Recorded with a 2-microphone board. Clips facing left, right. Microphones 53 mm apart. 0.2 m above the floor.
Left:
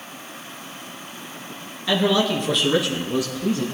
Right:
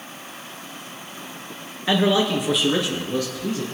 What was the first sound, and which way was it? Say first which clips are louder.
A man speaking: right 1 dB; 25° right (ahead or behind).